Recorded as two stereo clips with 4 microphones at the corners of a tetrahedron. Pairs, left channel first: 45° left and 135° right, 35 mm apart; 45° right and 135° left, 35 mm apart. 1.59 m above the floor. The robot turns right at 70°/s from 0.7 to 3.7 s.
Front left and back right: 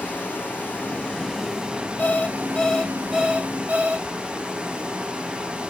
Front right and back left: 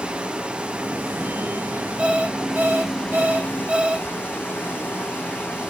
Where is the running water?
80° left, 4 m; by 5.7 s 70° right, 4 m.